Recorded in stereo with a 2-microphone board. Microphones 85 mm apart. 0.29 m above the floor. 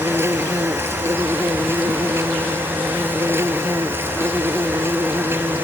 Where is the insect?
30° right (ahead or behind).